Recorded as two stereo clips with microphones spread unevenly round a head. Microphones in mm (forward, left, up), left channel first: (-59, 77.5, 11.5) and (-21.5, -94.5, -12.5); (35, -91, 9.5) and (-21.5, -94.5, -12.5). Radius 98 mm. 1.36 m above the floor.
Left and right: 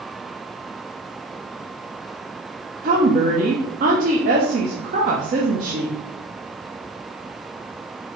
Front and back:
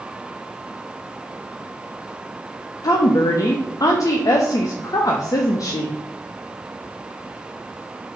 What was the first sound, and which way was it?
A woman speaking, 30° right.